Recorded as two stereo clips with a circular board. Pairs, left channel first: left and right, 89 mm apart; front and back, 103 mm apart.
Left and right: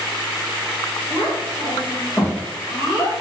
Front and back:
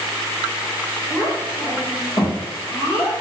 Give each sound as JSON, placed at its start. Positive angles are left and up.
{"t": 1.1, "sound": "a child speaking", "azimuth_deg": 30, "distance_m": 1.5}